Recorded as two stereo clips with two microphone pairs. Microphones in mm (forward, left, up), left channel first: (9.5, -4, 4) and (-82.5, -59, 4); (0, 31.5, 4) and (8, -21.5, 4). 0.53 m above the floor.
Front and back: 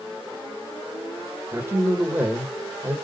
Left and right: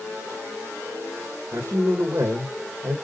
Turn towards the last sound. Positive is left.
turn(degrees=-90)